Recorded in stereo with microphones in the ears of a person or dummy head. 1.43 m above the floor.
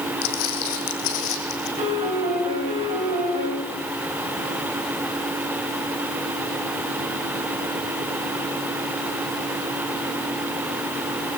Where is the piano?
30° right (ahead or behind), 3.5 m.